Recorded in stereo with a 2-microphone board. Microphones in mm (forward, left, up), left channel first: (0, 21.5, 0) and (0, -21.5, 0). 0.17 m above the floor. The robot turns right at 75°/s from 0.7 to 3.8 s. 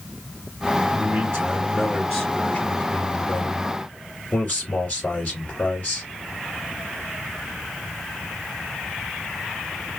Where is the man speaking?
80° right, 2 m; by 6.1 s 135° left, 2 m.